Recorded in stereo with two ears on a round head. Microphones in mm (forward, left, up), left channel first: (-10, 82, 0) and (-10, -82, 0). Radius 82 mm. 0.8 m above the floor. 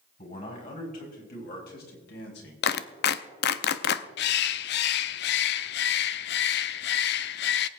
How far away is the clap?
About 0.6 m.